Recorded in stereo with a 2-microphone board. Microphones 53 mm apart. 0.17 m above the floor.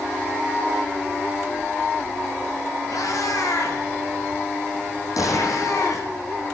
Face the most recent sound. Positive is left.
turn(degrees=80)